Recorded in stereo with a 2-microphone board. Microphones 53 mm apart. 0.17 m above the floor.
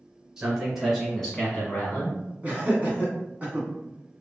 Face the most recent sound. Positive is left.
turn(degrees=-30)  # may be behind; listen again after turning